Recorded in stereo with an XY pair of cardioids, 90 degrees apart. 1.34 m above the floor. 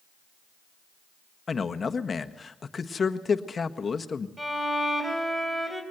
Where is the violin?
10° right, 3.5 m.